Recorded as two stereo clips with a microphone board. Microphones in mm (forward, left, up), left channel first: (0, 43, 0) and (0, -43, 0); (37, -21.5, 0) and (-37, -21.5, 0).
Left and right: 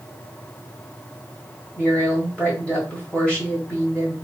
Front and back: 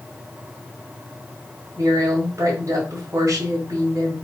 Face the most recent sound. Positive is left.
turn(degrees=165)